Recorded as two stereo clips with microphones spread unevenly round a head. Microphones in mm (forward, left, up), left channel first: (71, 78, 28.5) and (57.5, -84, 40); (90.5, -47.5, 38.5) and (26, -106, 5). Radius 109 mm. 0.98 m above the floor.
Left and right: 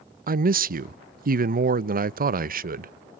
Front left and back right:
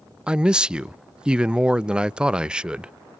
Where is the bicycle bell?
I don't hear a bicycle bell.